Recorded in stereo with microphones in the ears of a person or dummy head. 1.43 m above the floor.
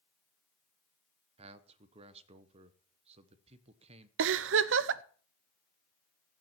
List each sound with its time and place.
1.4 s a man speaking: 40° right (ahead or behind), 1.1 m
4.2 s a giggle: 70° right (ahead or behind), 0.6 m